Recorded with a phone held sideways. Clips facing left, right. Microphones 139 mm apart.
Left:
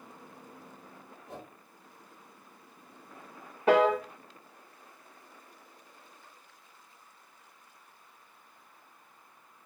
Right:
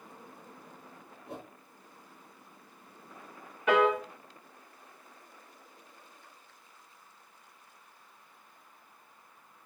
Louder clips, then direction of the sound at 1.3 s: Right 2 dB; 70° right (ahead or behind).